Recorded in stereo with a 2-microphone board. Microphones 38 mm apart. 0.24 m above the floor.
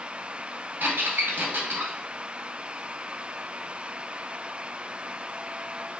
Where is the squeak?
70° right (ahead or behind), 1.2 m.